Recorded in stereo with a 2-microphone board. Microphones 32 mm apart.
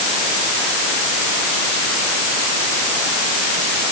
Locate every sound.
Only background noise.